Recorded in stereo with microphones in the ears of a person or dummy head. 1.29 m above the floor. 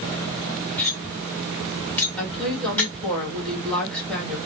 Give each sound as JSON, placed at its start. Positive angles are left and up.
{"t": 0.8, "sound": "cutlery clinking", "side_deg": 5, "distance_m": 1.1}
{"t": 2.2, "sound": "a woman speaking", "side_deg": 0, "distance_m": 1.7}